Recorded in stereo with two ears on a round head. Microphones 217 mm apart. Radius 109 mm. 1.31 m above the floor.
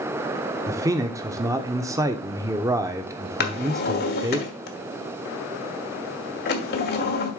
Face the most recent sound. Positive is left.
turn(degrees=45)  # may be behind; listen again after turning